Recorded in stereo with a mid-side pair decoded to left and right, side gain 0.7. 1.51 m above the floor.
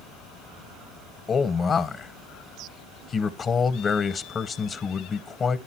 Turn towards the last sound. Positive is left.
turn(degrees=30)